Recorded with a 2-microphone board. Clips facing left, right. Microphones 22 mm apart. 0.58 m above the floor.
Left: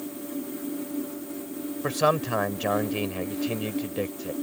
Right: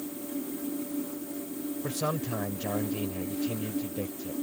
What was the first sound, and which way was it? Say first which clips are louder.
A man speaking: left 10 dB; 55° left (ahead or behind).